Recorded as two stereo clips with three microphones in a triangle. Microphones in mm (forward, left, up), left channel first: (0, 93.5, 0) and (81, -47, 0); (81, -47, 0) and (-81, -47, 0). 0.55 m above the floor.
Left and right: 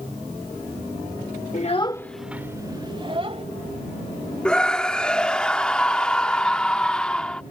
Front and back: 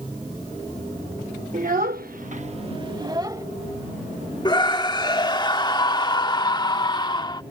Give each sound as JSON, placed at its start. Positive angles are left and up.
{"t": 1.5, "sound": "a child speaking", "azimuth_deg": 150}
{"t": 4.5, "sound": "a scream", "azimuth_deg": 40}